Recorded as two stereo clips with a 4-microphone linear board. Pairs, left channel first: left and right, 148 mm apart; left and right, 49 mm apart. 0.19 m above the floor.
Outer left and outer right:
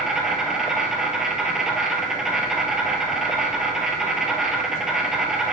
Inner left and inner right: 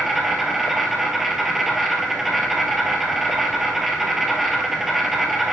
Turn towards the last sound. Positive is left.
turn(degrees=-5)  # may be behind; listen again after turning